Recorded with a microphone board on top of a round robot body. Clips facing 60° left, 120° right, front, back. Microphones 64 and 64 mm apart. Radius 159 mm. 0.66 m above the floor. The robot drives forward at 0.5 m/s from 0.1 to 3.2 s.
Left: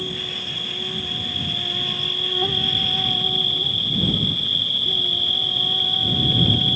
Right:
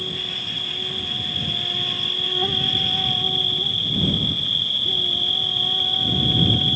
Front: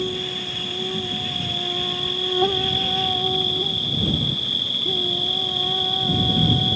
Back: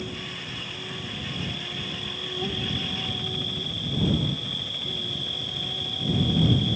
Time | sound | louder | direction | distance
0.0 | an insect | left 1 dB, front 8 dB | 25° right | ?